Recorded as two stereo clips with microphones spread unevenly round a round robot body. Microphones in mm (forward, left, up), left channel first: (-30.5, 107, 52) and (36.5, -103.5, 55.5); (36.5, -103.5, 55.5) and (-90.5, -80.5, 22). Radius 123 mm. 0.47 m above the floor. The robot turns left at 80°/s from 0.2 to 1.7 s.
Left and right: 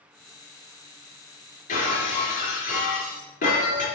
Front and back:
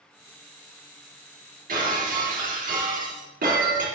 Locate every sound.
1.7 s breaking glass: 165° left, 4 m